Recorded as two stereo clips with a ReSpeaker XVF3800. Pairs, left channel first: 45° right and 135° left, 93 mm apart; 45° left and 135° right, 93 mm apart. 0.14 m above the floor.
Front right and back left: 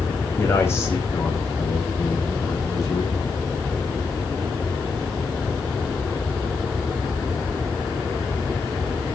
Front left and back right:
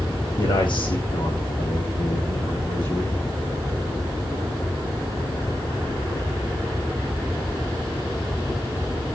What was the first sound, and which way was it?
A man speaking, 20° left.